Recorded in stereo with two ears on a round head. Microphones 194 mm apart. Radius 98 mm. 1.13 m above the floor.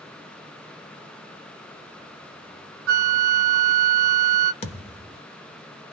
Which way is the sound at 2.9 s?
55° right (ahead or behind).